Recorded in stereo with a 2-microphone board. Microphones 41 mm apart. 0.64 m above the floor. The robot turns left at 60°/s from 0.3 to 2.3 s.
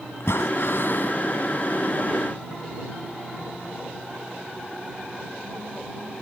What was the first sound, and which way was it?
Breathing, 95° left.